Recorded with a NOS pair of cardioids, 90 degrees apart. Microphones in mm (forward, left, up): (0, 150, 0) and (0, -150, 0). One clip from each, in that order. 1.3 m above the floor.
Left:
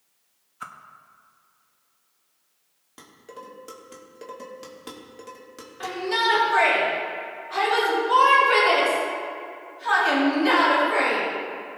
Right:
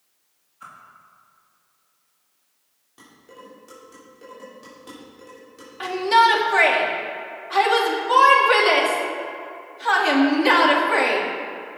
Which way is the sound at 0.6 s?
55° left.